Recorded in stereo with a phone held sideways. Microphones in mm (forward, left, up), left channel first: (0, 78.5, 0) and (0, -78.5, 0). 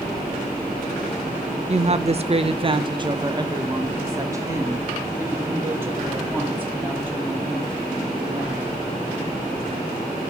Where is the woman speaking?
45° right (ahead or behind), 0.7 m; by 8.8 s 10° right (ahead or behind), 3.5 m.